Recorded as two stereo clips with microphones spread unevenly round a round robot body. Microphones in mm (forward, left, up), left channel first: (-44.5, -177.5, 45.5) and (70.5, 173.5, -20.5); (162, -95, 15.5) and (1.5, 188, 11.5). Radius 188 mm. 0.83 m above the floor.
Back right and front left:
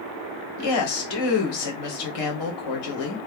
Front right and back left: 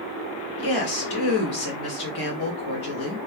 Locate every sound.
0.6 s a woman speaking: 90° right, 2 m